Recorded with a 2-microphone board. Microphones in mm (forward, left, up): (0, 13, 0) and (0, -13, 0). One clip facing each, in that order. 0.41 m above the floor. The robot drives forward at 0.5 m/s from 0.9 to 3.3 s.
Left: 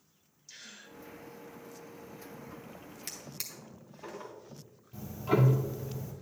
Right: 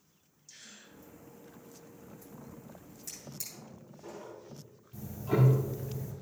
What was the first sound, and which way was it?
A gasp, 30° left (ahead or behind).